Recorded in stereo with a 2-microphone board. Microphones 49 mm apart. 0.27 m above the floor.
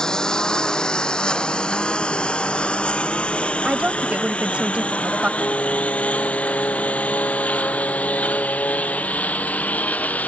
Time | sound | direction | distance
0.0 | a lawn mower | 15° left (ahead or behind) | ?
3.6 | a woman speaking | 25° right (ahead or behind) | ?
5.4 | singing | 55° left (ahead or behind) | ?